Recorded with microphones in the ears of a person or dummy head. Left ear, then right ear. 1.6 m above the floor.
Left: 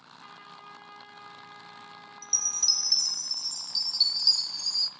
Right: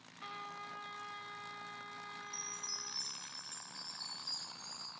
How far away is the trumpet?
About 3 m.